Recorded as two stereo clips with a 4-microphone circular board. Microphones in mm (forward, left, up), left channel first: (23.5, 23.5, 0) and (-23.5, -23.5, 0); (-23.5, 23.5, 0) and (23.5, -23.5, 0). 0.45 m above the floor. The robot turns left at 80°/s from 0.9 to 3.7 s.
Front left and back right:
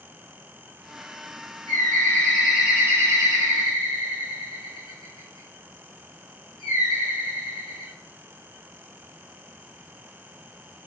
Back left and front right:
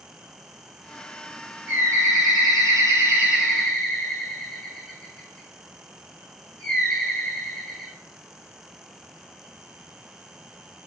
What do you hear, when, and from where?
1.7 s a bird: 15° left, 4 m; by 7.9 s 145° right, 4 m